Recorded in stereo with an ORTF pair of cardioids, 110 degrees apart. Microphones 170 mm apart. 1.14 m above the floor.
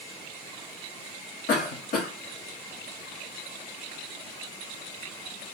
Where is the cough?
55° left, 2 m.